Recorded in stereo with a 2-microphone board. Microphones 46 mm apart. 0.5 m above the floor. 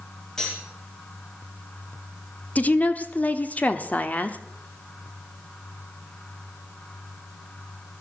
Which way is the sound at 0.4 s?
15° left (ahead or behind).